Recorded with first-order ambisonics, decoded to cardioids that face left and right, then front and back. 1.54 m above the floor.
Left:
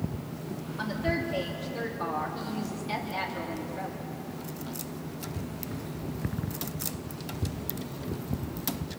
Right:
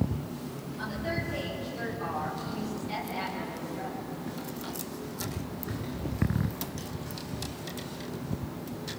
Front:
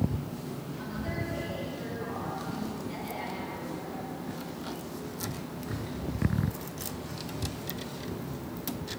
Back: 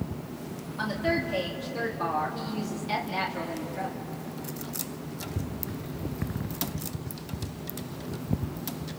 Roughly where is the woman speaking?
Behind left.